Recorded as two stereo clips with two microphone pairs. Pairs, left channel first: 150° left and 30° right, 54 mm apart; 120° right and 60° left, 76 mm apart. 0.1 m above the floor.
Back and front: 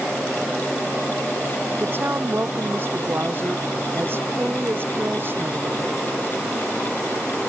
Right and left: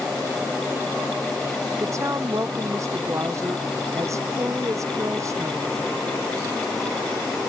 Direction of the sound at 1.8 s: 15° left.